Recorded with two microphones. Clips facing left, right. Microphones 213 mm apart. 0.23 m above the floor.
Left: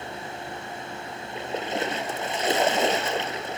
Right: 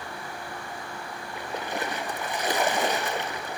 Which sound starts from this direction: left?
A splash, at 1.4 s.